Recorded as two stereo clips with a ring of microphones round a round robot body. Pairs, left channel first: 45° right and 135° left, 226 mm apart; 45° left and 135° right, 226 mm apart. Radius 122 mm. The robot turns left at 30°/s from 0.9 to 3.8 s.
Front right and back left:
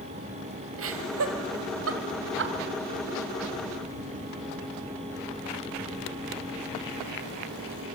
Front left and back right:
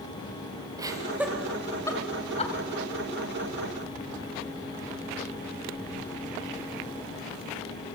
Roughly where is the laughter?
Behind left.